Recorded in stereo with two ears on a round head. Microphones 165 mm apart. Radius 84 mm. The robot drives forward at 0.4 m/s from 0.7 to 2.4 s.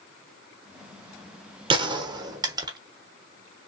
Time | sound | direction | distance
1.7 | a gunshot | 30° right (ahead or behind) | 0.9 m